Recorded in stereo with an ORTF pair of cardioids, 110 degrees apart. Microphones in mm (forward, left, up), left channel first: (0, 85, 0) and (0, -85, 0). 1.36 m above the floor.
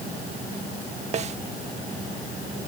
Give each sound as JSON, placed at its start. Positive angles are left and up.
{"t": 1.1, "sound": "a snare drum", "azimuth_deg": -40}